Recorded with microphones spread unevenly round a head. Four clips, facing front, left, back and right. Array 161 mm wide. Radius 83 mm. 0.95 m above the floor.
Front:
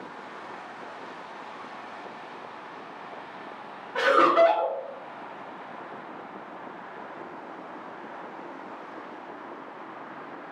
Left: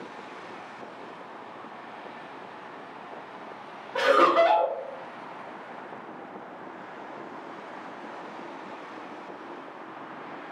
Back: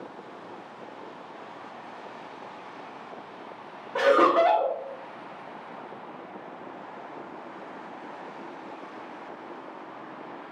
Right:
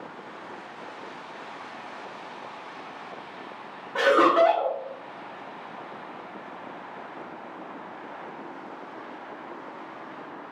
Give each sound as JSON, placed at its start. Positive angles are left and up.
{"t": 4.0, "sound": "laughter", "azimuth_deg": -160, "distance_m": 1.1}